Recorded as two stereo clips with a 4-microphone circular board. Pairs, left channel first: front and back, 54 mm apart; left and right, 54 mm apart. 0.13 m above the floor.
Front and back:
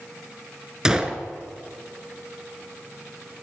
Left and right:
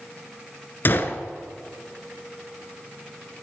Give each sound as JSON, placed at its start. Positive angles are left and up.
{"t": 0.8, "sound": "a gunshot", "azimuth_deg": 110, "distance_m": 0.7}